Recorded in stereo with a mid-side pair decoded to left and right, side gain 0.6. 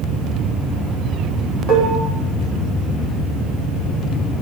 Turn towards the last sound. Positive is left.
turn(degrees=-65)